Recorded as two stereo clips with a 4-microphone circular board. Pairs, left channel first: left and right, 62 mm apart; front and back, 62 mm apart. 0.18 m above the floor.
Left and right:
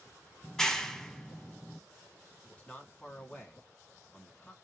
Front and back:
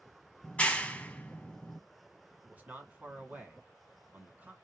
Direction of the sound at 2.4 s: 145° left.